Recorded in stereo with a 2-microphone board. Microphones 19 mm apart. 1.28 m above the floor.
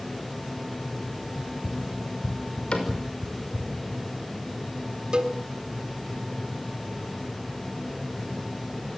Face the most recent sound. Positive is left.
turn(degrees=-45)  # may be behind; listen again after turning